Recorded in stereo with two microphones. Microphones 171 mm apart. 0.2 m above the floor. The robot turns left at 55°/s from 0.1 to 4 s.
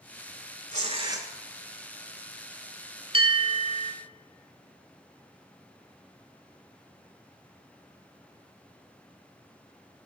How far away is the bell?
About 0.7 m.